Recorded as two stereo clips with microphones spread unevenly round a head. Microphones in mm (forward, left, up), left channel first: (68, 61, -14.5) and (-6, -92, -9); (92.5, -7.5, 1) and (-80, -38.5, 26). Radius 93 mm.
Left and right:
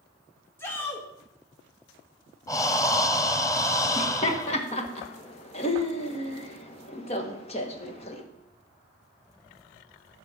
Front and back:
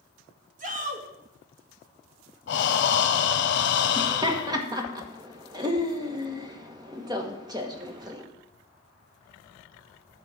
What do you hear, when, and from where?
0.6 s a shout: 145° left, 1.7 m
2.5 s breathing: 5° right, 0.8 m
4.0 s laughter: 125° left, 1.4 m